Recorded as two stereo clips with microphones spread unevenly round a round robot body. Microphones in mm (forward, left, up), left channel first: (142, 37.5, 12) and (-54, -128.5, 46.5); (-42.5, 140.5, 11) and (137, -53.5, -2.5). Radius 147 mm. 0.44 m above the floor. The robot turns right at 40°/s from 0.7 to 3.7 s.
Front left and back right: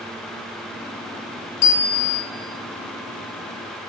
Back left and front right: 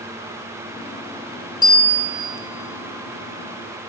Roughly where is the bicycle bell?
Ahead left.